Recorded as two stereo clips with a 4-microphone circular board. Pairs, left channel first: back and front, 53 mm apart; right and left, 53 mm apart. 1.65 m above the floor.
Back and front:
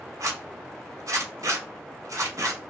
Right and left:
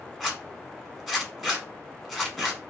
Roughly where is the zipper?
Ahead.